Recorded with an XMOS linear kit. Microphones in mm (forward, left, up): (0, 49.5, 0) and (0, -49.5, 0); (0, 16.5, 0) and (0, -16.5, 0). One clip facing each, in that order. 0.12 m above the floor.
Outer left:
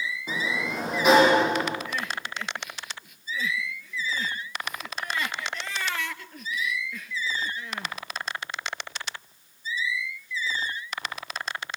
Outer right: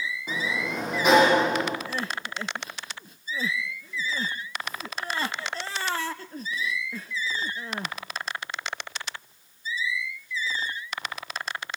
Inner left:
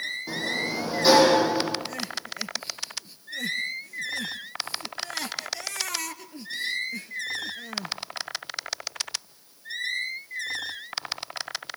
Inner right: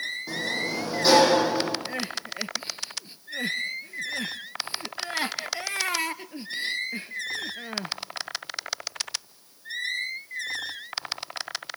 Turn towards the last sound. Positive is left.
turn(degrees=-35)  # may be behind; listen again after turning